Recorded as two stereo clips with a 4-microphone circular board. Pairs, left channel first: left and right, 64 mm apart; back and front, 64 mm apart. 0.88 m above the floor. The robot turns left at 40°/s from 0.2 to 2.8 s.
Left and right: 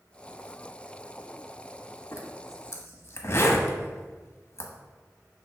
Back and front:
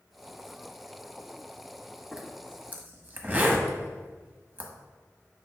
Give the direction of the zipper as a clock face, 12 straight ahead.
9 o'clock.